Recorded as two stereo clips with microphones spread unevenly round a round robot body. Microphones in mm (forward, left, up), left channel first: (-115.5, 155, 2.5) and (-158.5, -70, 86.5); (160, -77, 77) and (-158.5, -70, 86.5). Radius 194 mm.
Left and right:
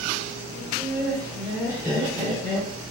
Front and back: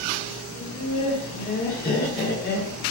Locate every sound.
0.6 s laughter: 60° left, 1.5 m; by 2.8 s 45° right, 1.5 m